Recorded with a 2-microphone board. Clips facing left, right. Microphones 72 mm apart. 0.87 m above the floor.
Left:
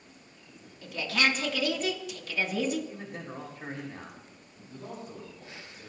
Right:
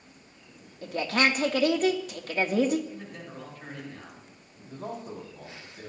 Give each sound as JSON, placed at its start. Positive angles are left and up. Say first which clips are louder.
{"t": 0.8, "sound": "a woman speaking", "louder": "right 3 dB", "side_deg": -45, "distance_m": 2.0}
{"t": 2.9, "sound": "a man speaking", "louder": "left 1 dB", "side_deg": 30, "distance_m": 4.5}
{"t": 4.7, "sound": "a man speaking", "louder": "right 5 dB", "side_deg": -60, "distance_m": 5.5}